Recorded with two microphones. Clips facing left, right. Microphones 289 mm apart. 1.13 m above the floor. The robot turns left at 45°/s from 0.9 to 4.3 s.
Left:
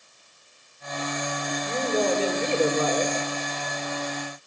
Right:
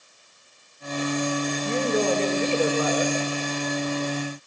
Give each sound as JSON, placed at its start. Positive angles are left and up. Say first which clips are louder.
{"t": 1.6, "sound": "a woman speaking", "louder": "right 1 dB", "azimuth_deg": -160, "distance_m": 3.5}